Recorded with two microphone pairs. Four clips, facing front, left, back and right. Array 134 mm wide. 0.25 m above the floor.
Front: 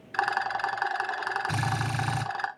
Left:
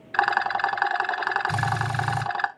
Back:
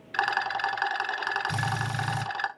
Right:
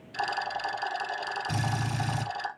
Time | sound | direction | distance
0.1 | a rattle | 85° left | 0.9 m
1.5 | a drill | 10° left | 6.5 m